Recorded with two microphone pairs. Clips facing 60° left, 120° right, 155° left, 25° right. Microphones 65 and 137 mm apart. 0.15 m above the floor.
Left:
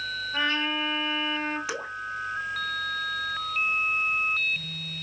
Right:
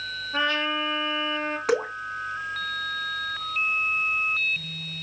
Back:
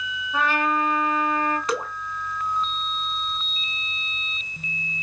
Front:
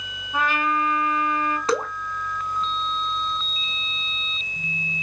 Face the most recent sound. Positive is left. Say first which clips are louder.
# right 9 dB, front 4 dB
turn(degrees=-85)